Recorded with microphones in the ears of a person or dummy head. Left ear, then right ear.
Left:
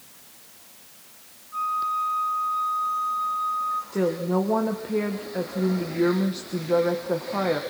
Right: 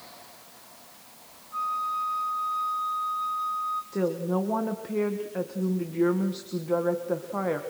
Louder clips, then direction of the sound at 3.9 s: Left 4 dB; 5° right (ahead or behind).